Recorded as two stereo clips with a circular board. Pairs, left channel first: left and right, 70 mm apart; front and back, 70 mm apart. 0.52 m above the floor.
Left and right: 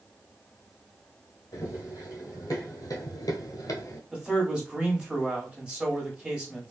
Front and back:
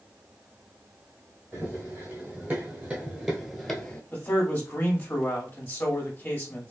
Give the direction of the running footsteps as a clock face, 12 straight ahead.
8 o'clock.